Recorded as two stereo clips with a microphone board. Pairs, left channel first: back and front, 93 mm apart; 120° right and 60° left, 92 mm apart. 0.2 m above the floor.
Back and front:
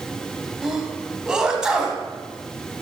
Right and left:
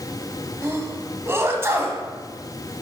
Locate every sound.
0.6 s a sneeze: 75° left, 1.0 m